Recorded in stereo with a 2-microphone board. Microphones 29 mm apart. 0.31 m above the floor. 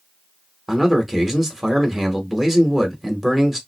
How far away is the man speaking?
About 1.0 m.